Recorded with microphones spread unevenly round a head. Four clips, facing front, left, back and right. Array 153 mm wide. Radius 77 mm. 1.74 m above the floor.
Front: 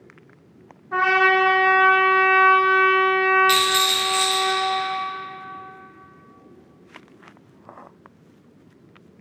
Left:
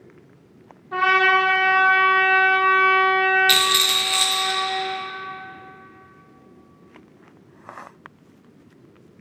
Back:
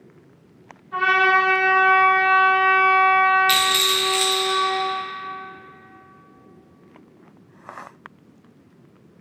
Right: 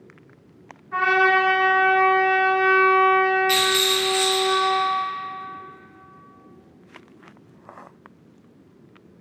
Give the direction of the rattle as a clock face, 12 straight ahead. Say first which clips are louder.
Right 1 dB, front 1 dB; 9 o'clock.